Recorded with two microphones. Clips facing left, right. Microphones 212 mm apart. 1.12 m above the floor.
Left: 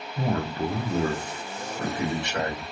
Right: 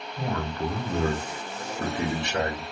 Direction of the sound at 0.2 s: 40° left (ahead or behind).